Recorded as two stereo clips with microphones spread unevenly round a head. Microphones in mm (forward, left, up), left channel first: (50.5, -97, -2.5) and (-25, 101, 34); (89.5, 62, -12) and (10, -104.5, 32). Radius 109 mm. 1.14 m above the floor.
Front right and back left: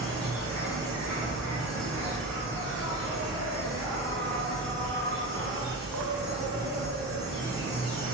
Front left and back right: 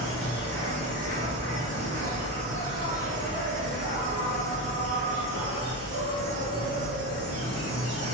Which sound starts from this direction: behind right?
An insect, at 0.0 s.